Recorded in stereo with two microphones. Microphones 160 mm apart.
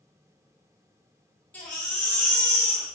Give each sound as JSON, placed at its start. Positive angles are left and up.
{"t": 1.5, "sound": "a baby crying", "side_deg": 10, "distance_m": 2.0}